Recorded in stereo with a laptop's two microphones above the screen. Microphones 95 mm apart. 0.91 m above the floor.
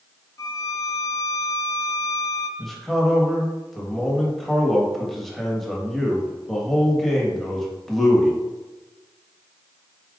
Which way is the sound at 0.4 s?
35° left (ahead or behind).